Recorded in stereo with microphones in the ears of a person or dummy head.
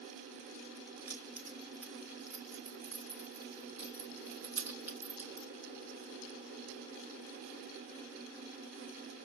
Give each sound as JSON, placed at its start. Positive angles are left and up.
{"t": 1.1, "sound": "keys jangling", "side_deg": -10, "distance_m": 0.6}